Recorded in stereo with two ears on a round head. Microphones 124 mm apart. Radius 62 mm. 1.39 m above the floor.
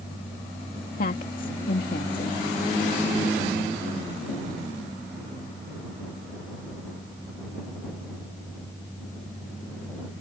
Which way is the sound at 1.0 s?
65° left (ahead or behind).